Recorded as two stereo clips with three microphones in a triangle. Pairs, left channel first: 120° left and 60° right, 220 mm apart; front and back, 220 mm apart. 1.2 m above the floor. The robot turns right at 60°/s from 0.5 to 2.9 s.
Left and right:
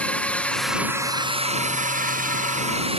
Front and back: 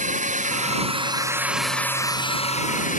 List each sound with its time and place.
0.0 s a drone: 160° right; by 3.0 s 15° right